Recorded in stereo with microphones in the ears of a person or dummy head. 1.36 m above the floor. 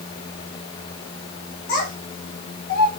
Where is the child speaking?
50° left (ahead or behind), 2 m; by 2.9 s 65° left (ahead or behind), 1.3 m.